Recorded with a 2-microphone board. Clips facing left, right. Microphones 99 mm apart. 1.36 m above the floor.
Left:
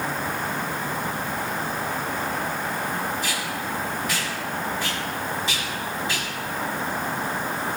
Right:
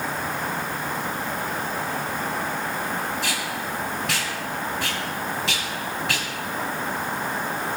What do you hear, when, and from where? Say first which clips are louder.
3.2 s tape being pulled: even; 80° right, 3 m